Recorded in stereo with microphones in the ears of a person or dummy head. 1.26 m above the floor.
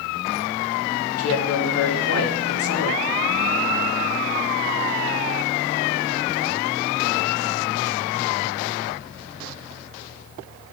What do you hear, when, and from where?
1.2 s a woman speaking: 85° left, 1.5 m